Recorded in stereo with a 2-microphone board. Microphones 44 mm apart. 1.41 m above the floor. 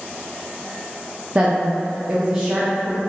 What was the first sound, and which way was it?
A woman speaking, 30° right (ahead or behind).